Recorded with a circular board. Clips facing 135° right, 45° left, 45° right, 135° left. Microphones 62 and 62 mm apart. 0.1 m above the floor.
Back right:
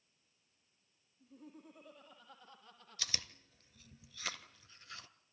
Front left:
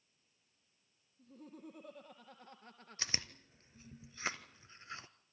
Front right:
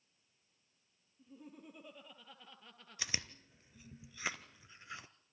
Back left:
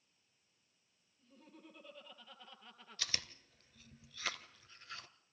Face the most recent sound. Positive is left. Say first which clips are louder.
# front left 3 dB, front right 2 dB
turn(degrees=10)